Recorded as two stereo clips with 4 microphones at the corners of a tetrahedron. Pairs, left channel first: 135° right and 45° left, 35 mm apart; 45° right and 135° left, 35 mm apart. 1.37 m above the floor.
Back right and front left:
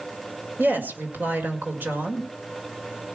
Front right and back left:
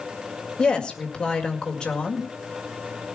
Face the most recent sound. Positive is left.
turn(degrees=15)